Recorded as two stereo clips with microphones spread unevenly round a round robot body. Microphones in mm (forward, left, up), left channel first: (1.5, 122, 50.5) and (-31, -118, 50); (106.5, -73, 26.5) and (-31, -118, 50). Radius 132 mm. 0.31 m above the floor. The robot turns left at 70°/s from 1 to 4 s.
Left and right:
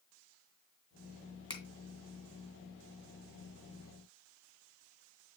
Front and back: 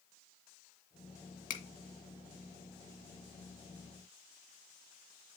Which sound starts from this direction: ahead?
A finger snap, at 1.5 s.